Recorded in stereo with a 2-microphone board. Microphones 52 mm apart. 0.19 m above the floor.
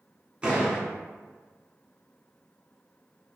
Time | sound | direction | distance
0.4 | a door slam | 20° right (ahead or behind) | 1.5 m